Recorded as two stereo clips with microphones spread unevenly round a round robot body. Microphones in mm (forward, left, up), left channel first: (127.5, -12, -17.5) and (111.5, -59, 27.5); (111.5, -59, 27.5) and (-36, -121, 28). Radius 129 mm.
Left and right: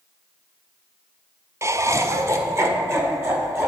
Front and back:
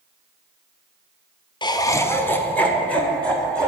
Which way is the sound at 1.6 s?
30° right.